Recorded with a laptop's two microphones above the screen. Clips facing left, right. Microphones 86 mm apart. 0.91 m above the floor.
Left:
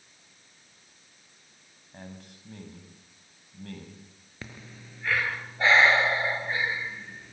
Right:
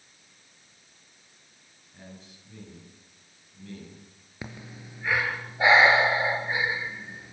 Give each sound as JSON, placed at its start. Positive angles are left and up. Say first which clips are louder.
{"t": 1.9, "sound": "a man speaking", "louder": "left 3 dB", "side_deg": 60, "distance_m": 7.0}
{"t": 4.4, "sound": "breathing", "louder": "right 4 dB", "side_deg": -15, "distance_m": 4.0}